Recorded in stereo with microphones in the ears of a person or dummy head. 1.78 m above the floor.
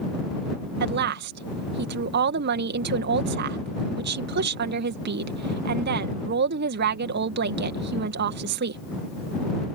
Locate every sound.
0.8 s a woman speaking: 60° right (ahead or behind)